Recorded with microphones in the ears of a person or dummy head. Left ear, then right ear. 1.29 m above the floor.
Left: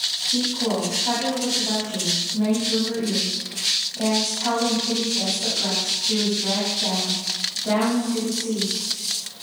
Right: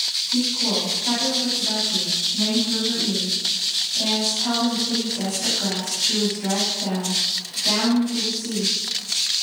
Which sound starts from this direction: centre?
A woman speaking, at 0.3 s.